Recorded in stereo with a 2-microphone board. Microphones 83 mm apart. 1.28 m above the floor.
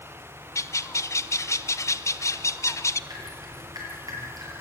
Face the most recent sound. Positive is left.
turn(degrees=-50)  # may be behind; listen again after turning